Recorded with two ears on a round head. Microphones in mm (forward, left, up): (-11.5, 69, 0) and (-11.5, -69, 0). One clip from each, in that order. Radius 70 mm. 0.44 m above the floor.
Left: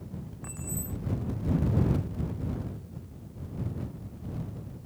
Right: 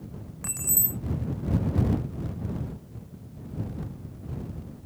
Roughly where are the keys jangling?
Right.